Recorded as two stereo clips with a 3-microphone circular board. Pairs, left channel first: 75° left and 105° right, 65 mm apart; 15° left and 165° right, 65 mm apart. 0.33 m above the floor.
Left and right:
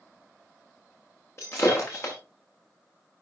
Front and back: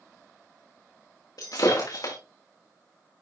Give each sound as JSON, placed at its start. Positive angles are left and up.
{"t": 1.4, "sound": "breaking glass", "azimuth_deg": 30, "distance_m": 4.0}